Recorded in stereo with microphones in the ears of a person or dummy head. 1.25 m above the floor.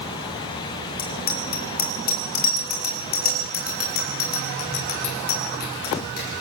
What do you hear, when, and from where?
1.0 s a bicycle bell: 50° left (ahead or behind), 4 m